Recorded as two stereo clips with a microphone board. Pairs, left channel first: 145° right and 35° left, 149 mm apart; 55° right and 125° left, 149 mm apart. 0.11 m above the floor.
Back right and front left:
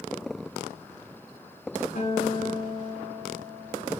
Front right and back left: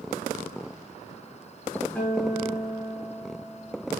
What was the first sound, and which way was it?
A guitar, 140° right.